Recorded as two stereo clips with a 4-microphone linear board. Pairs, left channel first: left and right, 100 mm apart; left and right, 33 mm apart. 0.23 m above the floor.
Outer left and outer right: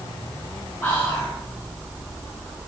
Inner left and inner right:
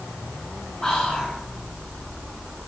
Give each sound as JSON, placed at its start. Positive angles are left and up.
{"t": 0.8, "sound": "whispering", "side_deg": 25, "distance_m": 2.0}